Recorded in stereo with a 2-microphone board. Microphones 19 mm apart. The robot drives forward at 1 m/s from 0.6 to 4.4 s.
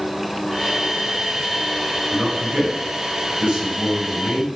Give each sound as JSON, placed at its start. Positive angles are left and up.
{"t": 2.1, "sound": "a man speaking", "side_deg": -45, "distance_m": 5.0}